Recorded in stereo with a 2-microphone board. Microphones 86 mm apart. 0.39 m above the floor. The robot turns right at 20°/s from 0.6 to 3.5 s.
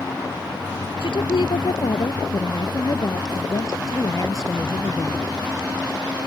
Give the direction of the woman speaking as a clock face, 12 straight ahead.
9 o'clock.